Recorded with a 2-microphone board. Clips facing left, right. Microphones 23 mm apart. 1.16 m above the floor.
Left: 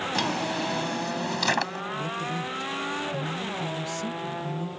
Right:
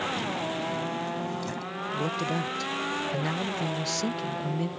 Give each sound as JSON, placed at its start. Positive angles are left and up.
{"t": 0.1, "sound": "a drawer", "side_deg": 75}
{"t": 1.9, "sound": "a man speaking", "side_deg": -65}